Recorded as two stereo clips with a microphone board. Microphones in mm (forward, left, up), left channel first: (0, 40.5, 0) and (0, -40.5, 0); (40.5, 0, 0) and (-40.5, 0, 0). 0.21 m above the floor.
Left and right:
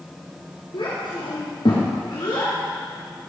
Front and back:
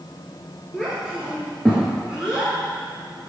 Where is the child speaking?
85° left, 2.5 m.